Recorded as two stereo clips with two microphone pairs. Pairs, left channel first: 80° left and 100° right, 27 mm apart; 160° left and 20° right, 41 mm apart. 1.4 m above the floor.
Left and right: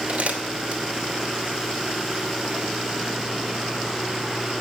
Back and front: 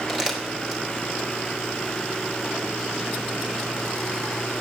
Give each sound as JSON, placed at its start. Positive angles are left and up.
{"t": 0.1, "sound": "crumpling", "azimuth_deg": -100, "distance_m": 2.5}